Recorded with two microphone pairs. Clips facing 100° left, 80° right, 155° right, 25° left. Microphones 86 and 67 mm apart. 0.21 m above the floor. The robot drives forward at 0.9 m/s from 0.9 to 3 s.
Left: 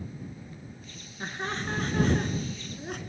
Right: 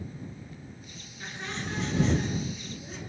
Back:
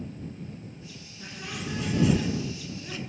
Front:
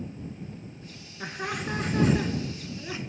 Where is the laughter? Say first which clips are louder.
Left 4 dB, front 5 dB; 55° left, 3 m; by 3.0 s 90° left, 2.5 m.